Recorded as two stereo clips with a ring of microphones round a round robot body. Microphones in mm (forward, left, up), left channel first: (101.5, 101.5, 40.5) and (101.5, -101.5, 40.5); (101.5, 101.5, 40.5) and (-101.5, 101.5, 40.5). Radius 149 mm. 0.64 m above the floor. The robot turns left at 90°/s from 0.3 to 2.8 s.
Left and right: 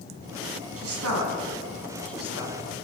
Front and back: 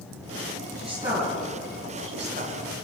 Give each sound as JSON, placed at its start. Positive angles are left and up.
{"t": 0.8, "sound": "a woman speaking", "azimuth_deg": -85, "distance_m": 5.0}